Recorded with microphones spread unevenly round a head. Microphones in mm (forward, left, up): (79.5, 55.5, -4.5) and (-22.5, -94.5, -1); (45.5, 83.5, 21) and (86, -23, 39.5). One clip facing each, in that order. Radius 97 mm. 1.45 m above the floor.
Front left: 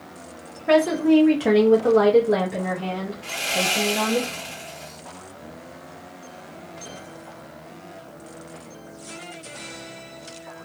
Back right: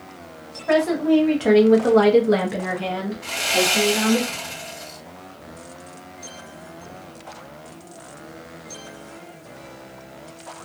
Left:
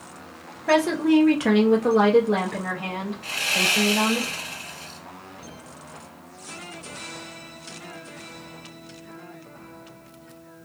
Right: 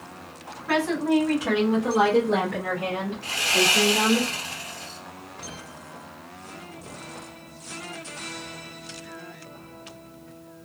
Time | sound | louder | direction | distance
0.7 | a woman speaking | front left 1 dB, left 4 dB | 115° left | 0.8 m
3.2 | sawing | back right 7 dB, right 4 dB | 120° right | 1.6 m